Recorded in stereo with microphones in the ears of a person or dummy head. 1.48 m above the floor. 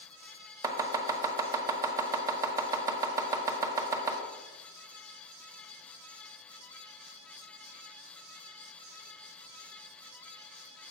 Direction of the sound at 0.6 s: 20° right (ahead or behind).